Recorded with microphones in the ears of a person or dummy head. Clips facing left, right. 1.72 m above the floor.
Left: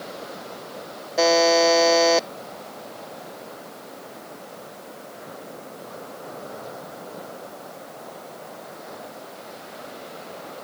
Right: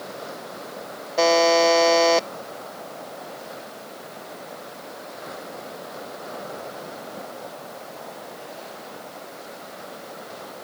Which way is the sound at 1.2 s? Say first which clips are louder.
Even; 5° left (ahead or behind).